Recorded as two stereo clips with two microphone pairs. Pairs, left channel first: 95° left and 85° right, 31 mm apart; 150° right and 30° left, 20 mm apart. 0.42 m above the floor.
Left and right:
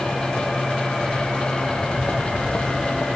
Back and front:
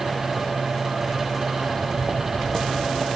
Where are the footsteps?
160° left, 2 m; by 3.1 s 105° left, 2.5 m.